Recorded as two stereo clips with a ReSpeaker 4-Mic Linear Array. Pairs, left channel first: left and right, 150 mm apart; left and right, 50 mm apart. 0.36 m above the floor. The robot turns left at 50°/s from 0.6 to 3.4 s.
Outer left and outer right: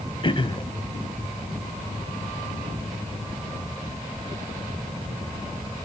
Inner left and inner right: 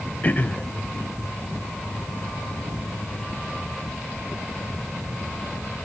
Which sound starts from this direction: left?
Throat clearing, at 0.2 s.